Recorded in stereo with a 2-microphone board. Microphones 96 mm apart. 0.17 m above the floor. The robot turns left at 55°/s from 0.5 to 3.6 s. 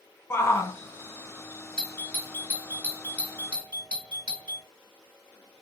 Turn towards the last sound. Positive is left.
turn(degrees=15)  # may be behind; listen again after turning